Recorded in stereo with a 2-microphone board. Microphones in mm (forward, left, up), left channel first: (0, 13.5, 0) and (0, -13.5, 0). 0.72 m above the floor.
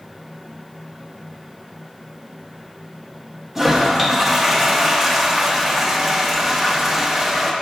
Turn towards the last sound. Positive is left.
turn(degrees=-10)  # may be behind; listen again after turning